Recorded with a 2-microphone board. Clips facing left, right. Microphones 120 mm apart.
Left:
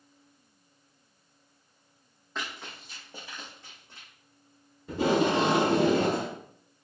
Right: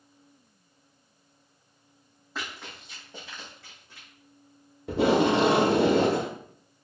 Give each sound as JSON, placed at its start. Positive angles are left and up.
{"t": 2.4, "sound": "running footsteps", "side_deg": -5, "distance_m": 1.9}
{"t": 4.9, "sound": "tape being pulled", "side_deg": -70, "distance_m": 0.7}